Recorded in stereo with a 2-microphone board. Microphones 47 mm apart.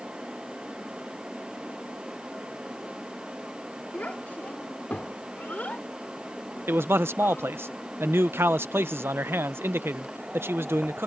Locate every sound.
3.9 s a child speaking: 35° left (ahead or behind)
6.7 s a man speaking: 55° right (ahead or behind)